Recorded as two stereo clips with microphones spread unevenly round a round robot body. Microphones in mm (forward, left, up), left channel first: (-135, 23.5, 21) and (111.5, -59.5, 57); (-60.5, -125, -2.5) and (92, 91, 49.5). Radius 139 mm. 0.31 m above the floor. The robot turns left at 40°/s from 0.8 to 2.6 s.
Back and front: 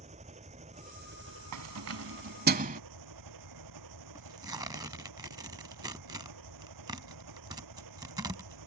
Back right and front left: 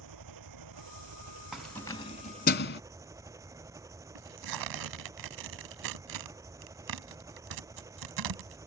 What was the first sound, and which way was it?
An engine running, 50° left.